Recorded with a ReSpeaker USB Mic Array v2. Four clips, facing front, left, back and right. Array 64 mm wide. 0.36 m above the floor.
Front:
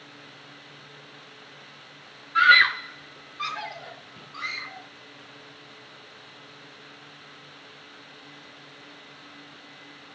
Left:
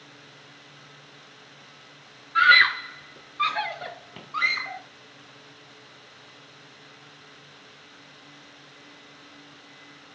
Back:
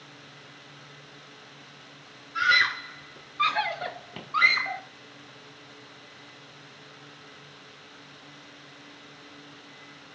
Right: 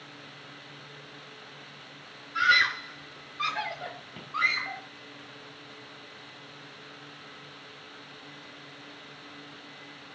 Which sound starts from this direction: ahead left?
A scream, at 2.4 s.